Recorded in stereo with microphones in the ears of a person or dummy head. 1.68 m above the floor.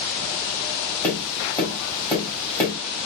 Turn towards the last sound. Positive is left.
turn(degrees=10)  # may be behind; listen again after turning